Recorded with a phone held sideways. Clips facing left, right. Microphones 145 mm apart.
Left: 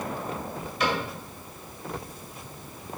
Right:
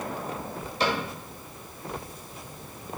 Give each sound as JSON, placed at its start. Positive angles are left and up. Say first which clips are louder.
{"t": 0.8, "sound": "a cupboard door", "louder": "even", "side_deg": -35, "distance_m": 2.0}